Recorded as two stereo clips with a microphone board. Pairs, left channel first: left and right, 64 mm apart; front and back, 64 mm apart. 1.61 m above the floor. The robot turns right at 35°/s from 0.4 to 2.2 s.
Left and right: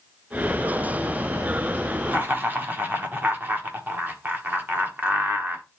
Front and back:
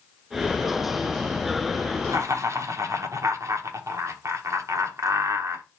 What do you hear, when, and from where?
2.1 s laughter: 155° right, 1.2 m; by 5.7 s 150° right, 1.2 m